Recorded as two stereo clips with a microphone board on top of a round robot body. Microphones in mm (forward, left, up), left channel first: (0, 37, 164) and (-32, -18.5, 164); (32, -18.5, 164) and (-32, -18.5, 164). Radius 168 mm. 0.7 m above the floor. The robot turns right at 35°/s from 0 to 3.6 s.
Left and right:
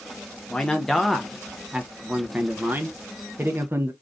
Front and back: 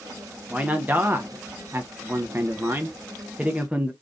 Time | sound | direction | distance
0.5 | a man speaking | 130° left | 0.9 m